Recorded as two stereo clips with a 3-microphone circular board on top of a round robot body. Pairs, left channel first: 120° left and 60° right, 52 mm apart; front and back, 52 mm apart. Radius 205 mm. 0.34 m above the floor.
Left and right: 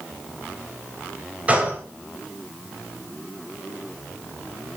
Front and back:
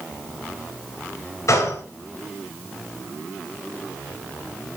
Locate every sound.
1.5 s a gunshot: straight ahead, 3.5 m